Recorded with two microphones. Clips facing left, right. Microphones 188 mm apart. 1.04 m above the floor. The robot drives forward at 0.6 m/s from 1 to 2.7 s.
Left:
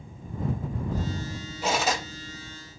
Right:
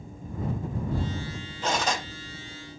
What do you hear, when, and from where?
1.6 s cutlery clinking: 10° left (ahead or behind), 0.7 m; by 2.0 s 5° left (ahead or behind), 1.0 m